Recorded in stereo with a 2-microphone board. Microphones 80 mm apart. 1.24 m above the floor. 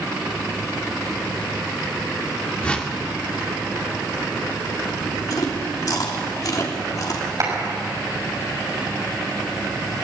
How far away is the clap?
About 6.5 m.